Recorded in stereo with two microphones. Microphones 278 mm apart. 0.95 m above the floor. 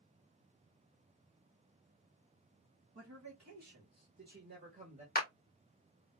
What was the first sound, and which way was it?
A man speaking, 65° right (ahead or behind).